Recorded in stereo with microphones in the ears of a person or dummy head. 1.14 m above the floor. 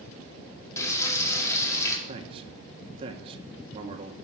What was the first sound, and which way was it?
Frying, 20° left (ahead or behind).